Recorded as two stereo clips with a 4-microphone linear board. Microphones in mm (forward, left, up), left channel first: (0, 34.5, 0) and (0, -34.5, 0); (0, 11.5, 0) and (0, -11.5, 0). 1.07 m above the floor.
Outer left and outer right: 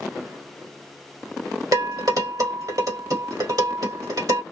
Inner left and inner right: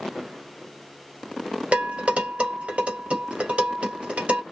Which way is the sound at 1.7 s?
60° right (ahead or behind).